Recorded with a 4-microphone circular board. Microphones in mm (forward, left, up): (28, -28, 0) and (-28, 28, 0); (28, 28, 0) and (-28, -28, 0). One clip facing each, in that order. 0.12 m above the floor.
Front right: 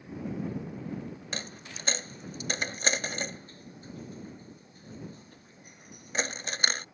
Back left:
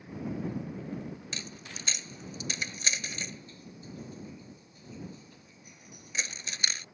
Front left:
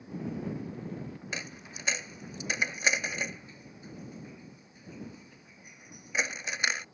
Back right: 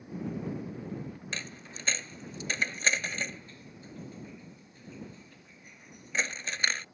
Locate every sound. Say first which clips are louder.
1.3 s a dropped coin: front right 3 dB, front left 1 dB; 30° right